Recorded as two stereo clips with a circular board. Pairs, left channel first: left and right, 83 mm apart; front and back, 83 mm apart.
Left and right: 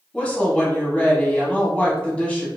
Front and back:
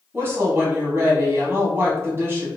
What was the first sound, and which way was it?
A woman speaking, 155° left.